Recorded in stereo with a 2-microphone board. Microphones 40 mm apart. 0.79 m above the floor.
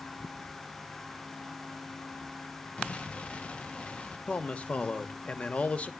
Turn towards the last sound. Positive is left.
turn(degrees=35)  # may be behind; listen again after turning